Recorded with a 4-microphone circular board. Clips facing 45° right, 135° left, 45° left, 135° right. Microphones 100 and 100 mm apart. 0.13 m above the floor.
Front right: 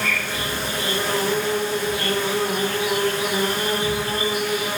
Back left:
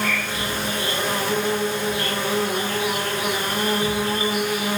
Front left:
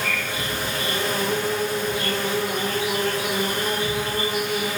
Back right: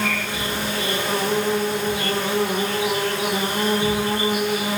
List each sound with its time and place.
0.0 s an insect: 155° right, 8.5 m